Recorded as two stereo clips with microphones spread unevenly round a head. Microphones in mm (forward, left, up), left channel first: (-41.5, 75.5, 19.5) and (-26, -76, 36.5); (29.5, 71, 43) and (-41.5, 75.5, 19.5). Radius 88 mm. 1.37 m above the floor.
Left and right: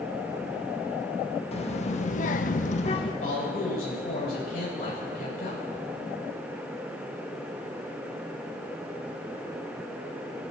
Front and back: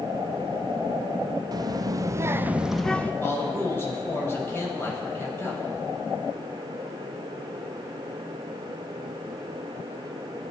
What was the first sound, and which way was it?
A child speaking, 145° left.